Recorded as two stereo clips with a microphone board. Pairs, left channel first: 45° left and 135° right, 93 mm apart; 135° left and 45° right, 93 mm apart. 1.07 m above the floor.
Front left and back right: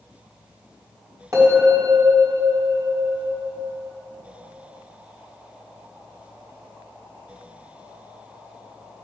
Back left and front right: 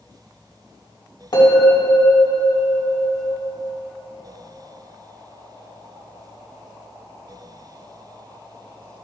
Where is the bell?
175° left, 4 m.